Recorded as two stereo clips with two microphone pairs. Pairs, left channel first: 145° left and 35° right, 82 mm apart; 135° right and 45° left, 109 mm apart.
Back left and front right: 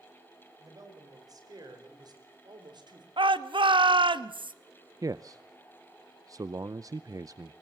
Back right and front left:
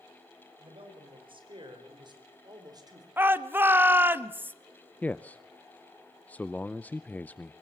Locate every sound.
0.6 s a man speaking: 10° left, 5.5 m; by 3.1 s 10° right, 4 m
3.2 s a shout: 25° right, 1.1 m
5.0 s a man speaking: 65° right, 0.5 m